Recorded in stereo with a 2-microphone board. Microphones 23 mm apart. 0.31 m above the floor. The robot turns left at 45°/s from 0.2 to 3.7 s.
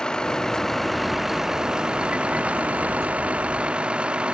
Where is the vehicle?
35° left (ahead or behind); by 4.3 s 50° right (ahead or behind).